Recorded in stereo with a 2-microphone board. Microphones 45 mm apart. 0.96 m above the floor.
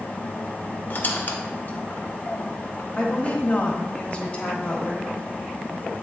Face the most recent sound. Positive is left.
turn(degrees=30)  # may be behind; listen again after turning